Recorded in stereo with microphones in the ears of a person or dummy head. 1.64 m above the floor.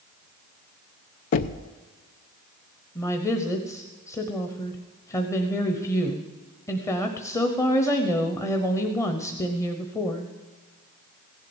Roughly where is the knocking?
Left.